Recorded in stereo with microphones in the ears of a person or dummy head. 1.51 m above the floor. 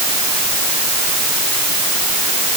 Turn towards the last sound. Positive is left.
No sound to turn to.